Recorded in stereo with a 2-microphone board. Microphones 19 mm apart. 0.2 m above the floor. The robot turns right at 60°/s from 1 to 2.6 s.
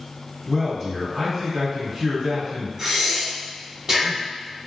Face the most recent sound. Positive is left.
turn(degrees=-30)  # may be behind; listen again after turning